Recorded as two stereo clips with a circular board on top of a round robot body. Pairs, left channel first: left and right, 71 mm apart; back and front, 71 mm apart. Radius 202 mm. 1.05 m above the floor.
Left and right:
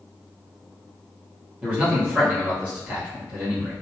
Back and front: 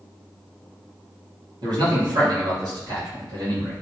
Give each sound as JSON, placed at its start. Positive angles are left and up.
{"t": 1.6, "sound": "a man speaking", "azimuth_deg": -20, "distance_m": 1.8}